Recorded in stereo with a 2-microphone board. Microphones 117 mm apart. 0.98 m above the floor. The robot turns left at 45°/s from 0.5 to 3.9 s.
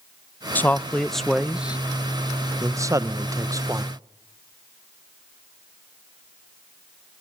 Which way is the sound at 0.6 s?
15° left (ahead or behind).